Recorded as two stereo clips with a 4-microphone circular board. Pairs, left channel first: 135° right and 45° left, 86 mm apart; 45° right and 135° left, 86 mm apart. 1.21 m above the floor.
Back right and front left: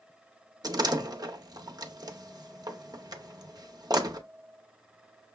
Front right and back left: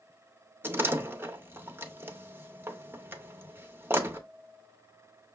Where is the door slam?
75° left, 0.7 m.